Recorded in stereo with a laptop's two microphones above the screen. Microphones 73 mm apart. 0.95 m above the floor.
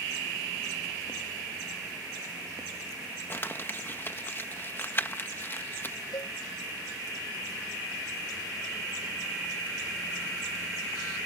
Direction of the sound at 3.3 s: 30° left (ahead or behind).